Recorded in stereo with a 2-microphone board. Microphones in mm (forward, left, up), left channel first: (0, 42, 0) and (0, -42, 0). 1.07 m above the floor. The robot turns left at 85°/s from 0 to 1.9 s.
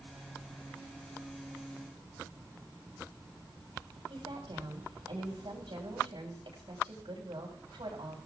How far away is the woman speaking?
About 6.5 m.